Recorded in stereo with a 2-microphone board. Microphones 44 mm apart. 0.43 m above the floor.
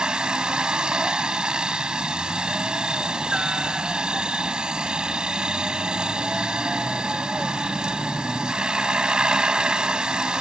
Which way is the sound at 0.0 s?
20° right (ahead or behind).